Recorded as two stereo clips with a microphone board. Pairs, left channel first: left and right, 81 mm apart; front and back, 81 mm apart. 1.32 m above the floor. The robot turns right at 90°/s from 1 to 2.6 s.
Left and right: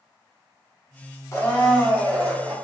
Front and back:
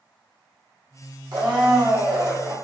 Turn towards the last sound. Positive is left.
turn(degrees=-105)